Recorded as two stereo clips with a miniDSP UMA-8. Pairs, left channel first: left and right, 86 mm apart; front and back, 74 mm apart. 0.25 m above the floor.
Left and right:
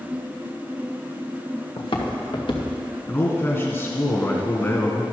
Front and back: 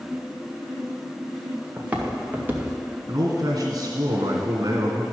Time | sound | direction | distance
1.8 | footsteps | 105° left | 1.7 m
3.1 | a man speaking | 150° left | 2.5 m